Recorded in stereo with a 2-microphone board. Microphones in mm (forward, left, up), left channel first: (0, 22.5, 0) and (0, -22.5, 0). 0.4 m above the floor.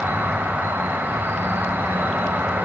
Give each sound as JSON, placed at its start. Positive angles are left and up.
{"t": 0.0, "sound": "an insect", "side_deg": -65, "distance_m": 1.0}